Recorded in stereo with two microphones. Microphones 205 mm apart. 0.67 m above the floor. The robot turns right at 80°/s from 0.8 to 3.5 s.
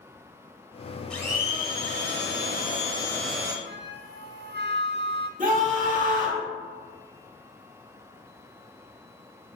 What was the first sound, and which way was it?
A blender, 5° left.